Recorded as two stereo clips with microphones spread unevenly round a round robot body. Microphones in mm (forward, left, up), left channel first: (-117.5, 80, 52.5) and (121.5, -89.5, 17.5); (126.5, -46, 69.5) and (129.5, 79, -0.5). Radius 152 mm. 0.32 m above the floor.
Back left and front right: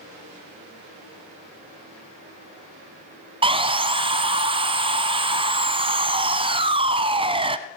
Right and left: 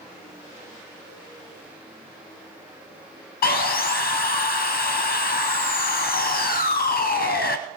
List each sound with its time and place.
3.4 s sawing: 110° right, 0.6 m